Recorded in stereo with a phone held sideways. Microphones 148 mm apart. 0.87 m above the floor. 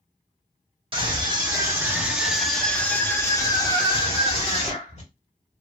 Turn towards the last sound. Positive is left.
turn(degrees=50)  # may be behind; listen again after turning